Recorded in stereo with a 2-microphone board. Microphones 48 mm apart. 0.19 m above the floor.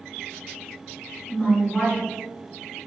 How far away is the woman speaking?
About 1.8 m.